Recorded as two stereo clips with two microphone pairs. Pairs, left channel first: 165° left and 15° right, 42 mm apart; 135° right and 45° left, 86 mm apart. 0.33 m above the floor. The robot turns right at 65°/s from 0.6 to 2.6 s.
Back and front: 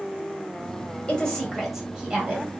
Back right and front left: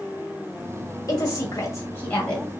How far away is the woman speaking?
About 1.8 m.